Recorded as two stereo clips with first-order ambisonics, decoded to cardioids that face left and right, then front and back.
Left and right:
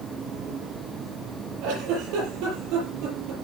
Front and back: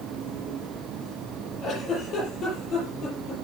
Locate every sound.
1.6 s a giggle: 60° right, 6.5 m